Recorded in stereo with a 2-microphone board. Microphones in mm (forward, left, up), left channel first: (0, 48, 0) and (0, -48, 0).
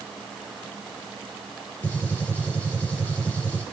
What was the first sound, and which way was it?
A gunshot, 15° left (ahead or behind).